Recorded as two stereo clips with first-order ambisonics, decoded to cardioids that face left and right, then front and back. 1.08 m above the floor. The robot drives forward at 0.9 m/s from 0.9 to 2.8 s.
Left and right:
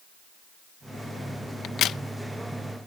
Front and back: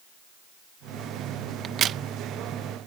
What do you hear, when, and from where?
1.6 s a crack: 125° left; by 2.0 s 140° left